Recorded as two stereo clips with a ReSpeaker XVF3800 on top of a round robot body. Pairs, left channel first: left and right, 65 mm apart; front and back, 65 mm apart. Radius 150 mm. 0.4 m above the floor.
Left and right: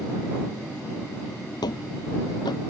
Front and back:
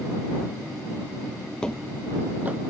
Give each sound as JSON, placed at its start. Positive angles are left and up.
{"t": 1.6, "sound": "footsteps", "azimuth_deg": 80}